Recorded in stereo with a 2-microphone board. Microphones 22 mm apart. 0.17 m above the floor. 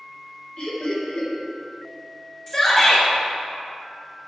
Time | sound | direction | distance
0.6 | laughter | 55° left (ahead or behind) | 3 m
2.5 | a shout | 35° left (ahead or behind) | 2.5 m